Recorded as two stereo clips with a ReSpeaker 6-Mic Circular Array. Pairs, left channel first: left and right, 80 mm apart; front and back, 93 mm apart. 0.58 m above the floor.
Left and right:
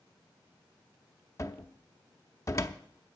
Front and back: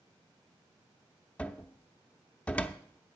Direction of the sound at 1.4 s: 65° left.